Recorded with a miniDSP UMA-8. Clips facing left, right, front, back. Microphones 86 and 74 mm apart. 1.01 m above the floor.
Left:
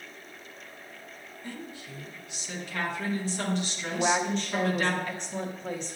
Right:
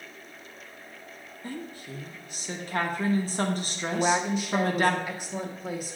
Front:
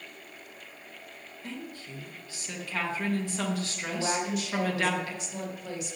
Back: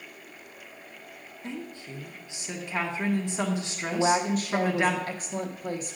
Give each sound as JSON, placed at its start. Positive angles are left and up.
{"t": 1.4, "sound": "a woman speaking", "azimuth_deg": -115, "distance_m": 1.0}
{"t": 3.9, "sound": "a woman speaking", "azimuth_deg": -170, "distance_m": 0.7}